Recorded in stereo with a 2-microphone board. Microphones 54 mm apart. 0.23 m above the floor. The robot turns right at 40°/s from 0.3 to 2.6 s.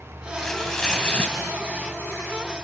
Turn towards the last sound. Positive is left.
turn(degrees=95)